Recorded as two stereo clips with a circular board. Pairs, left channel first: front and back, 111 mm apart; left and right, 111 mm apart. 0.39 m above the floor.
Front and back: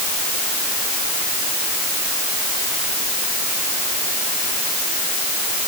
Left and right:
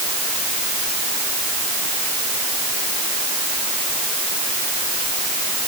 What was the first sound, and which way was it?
Only background noise.